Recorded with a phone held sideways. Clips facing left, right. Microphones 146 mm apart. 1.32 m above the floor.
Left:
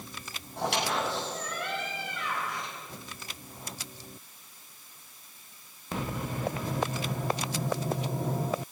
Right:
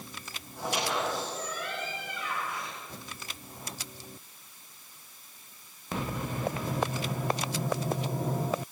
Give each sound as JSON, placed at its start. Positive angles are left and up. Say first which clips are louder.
{"t": 0.6, "sound": "a squeak", "louder": "left 1 dB", "side_deg": 75, "distance_m": 7.5}